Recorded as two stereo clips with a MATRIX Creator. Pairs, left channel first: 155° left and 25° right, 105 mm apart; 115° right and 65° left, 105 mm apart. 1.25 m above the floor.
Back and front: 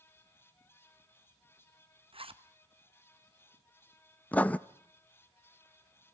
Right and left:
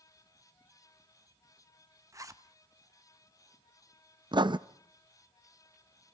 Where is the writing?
85° left, 0.6 m.